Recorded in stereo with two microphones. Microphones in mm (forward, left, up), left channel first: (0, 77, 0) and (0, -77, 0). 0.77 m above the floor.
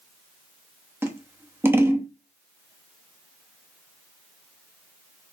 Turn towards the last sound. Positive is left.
turn(degrees=-15)  # may be behind; listen again after turning